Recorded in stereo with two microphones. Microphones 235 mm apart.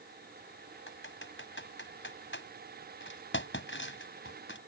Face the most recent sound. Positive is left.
turn(degrees=60)  # may be behind; listen again after turning